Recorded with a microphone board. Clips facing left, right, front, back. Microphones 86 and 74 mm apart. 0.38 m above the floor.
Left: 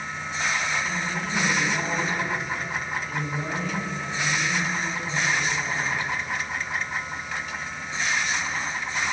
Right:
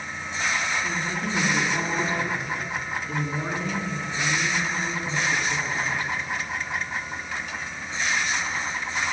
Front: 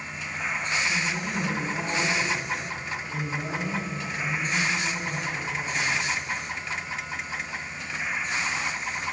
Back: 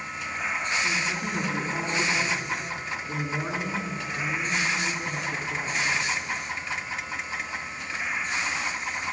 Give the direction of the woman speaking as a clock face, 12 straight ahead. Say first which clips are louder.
Right 1 dB, even; 5 o'clock.